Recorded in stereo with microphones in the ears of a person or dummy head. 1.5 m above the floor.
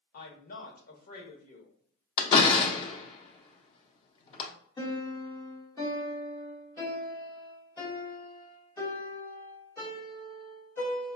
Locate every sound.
0.1 s a woman speaking: 55° left (ahead or behind), 1.0 m
2.2 s a door slam: 30° left (ahead or behind), 0.6 m
4.8 s a piano: 25° left (ahead or behind), 1.5 m